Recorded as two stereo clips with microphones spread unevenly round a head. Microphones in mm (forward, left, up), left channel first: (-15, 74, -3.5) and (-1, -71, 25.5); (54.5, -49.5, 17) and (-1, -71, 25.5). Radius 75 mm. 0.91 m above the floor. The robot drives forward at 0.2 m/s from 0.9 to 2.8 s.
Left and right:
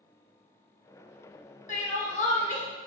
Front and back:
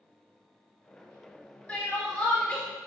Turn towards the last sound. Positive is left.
turn(degrees=110)